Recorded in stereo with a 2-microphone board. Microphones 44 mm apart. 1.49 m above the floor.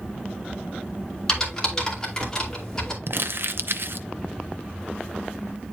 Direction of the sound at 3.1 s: 60° right (ahead or behind).